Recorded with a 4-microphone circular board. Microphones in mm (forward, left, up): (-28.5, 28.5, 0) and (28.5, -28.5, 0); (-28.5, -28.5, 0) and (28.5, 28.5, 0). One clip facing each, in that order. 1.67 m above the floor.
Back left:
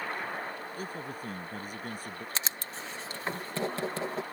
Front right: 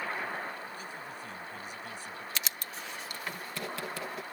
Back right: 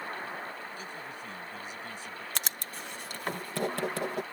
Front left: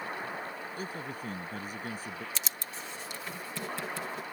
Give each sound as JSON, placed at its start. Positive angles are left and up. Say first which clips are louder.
{"t": 0.8, "sound": "a man speaking", "louder": "back left 4 dB, front left 3 dB", "azimuth_deg": 95}
{"t": 2.4, "sound": "writing", "louder": "back left 2 dB, back right 2 dB", "azimuth_deg": -165}